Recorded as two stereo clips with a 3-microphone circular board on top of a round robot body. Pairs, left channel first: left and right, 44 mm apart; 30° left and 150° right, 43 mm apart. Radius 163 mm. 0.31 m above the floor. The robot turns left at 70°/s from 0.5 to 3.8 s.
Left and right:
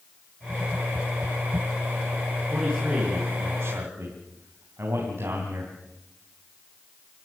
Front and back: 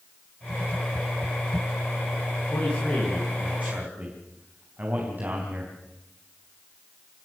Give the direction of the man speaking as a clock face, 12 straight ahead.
1 o'clock.